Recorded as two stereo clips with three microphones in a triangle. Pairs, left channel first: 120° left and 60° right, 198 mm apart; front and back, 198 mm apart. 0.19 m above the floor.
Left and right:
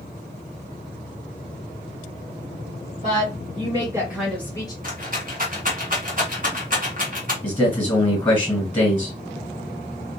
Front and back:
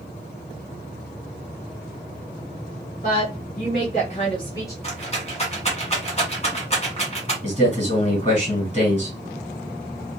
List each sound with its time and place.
3.0 s a woman speaking: 20° right, 1.9 m; by 4.7 s 65° left, 1.3 m
4.8 s a rattle: 45° right, 1.2 m
7.4 s a man speaking: 40° left, 1.9 m